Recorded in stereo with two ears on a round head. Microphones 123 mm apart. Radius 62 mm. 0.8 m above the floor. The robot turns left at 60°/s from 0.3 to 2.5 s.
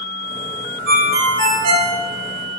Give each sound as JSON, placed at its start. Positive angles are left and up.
{"t": 0.9, "sound": "a ringtone", "azimuth_deg": -85, "distance_m": 0.8}